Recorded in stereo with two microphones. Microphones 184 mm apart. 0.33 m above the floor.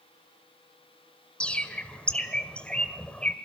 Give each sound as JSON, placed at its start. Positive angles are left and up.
{"t": 1.4, "sound": "a bird", "side_deg": 5, "distance_m": 1.7}